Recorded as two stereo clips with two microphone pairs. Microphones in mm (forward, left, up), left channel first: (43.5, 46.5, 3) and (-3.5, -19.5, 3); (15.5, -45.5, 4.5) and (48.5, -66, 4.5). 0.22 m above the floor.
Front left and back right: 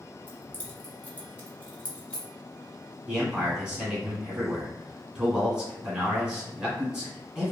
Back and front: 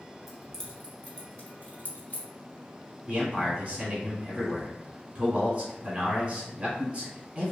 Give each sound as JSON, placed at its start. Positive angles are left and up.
{"t": 0.3, "sound": "keys jangling", "azimuth_deg": 55, "distance_m": 0.8}
{"t": 3.1, "sound": "a man speaking", "azimuth_deg": -40, "distance_m": 1.3}